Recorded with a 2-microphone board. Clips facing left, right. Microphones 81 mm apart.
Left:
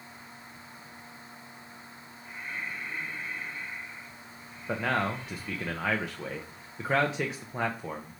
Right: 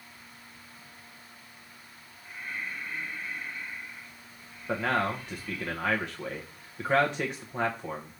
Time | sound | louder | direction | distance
2.2 | breathing | even | 30° left (ahead or behind) | 2.5 m
4.7 | a man speaking | right 1 dB | centre (ahead or behind) | 0.8 m